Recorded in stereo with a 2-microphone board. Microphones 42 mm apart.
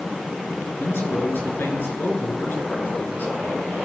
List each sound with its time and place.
0.8 s a man speaking: 60° left (ahead or behind), 5.5 m; by 3.4 s 40° left (ahead or behind), 5.5 m